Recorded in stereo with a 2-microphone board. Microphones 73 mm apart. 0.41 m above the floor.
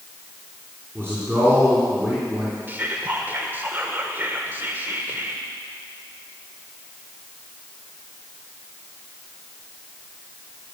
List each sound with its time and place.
0.9 s a man speaking: 35° right (ahead or behind), 3.5 m
2.7 s whispering: 30° right (ahead or behind), 1.2 m